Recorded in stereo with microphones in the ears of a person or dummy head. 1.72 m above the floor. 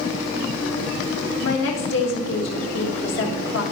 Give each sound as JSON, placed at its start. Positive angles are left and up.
{"t": 1.4, "sound": "a woman speaking", "side_deg": 75, "distance_m": 1.5}